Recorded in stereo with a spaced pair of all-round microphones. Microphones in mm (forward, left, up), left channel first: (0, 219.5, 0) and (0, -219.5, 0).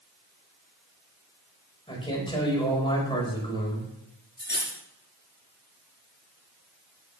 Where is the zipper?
No zipper in this recording.